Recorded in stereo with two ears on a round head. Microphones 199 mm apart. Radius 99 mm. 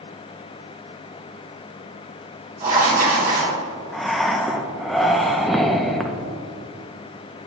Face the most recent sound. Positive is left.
turn(degrees=0)  # may be behind; listen again after turning